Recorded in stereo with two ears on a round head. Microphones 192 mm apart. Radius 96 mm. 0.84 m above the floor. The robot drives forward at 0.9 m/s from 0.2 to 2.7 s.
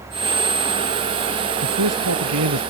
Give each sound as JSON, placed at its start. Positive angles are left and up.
{"t": 1.6, "sound": "a man speaking", "side_deg": -85}